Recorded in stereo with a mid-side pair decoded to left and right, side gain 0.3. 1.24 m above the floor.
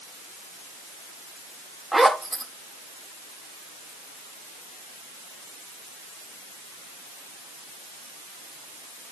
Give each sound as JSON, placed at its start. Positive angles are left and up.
{"t": 1.9, "sound": "a zipper", "azimuth_deg": -30, "distance_m": 1.8}